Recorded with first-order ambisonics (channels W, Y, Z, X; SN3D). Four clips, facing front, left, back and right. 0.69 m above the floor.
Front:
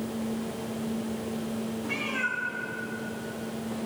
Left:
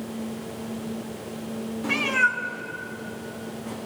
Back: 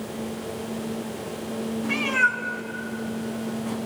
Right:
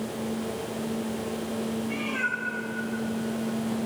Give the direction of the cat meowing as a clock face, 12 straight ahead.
9 o'clock.